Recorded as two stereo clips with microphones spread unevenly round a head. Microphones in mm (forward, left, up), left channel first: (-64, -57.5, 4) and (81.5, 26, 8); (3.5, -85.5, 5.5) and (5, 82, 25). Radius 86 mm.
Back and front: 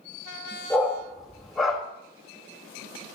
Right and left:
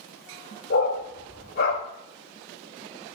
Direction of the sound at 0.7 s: 60° right.